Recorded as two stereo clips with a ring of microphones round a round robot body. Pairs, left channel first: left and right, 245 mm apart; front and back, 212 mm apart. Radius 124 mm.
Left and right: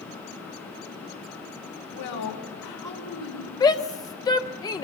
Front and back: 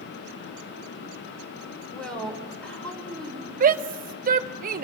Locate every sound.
1.9 s a woman speaking: 85° left, 4 m
3.6 s a shout: 160° left, 0.5 m